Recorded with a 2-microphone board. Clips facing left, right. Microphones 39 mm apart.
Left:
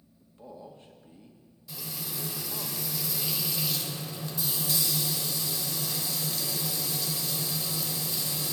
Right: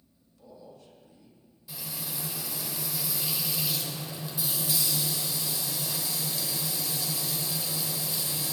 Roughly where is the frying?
Centre.